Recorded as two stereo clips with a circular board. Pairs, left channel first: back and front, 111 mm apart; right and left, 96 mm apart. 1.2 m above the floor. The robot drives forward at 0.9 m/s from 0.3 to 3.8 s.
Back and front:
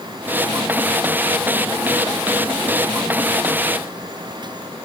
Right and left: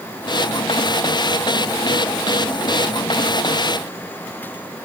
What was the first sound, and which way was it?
Only background noise.